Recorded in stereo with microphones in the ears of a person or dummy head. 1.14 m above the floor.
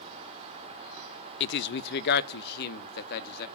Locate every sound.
1.4 s a man speaking: 60° left (ahead or behind), 0.6 m; by 3.5 s 55° left (ahead or behind), 2 m